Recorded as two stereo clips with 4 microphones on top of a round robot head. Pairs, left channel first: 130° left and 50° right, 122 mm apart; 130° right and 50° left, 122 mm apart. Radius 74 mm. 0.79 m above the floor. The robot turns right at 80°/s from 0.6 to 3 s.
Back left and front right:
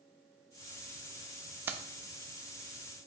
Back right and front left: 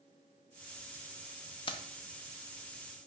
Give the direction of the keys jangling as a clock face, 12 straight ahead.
4 o'clock.